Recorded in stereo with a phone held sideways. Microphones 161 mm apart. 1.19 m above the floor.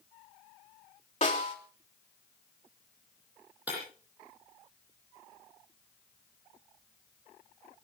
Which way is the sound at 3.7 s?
10° right (ahead or behind).